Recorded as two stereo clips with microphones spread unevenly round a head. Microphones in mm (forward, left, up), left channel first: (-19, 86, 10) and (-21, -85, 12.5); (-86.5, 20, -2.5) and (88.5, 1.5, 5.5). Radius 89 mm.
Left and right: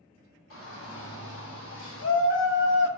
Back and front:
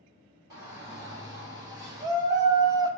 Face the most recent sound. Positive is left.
turn(degrees=65)